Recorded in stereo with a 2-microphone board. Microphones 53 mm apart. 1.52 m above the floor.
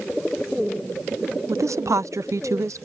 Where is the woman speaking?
75° right (ahead or behind).